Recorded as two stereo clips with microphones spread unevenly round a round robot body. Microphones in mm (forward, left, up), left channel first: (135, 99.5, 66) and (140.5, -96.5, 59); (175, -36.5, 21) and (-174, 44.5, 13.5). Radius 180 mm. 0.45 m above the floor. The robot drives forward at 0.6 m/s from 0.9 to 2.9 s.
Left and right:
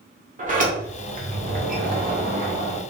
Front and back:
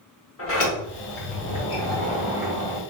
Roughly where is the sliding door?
Ahead right.